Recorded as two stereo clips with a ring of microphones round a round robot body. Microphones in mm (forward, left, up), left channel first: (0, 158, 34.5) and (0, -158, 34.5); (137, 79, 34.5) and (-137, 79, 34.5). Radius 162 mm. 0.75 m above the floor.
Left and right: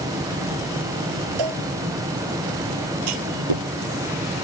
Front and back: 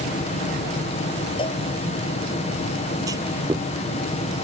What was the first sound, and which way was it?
A cowbell, 75° right.